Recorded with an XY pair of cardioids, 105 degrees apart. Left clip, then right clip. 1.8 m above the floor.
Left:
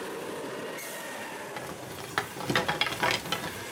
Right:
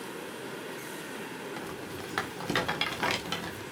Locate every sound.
1.6 s a rattle: 20° left, 1.6 m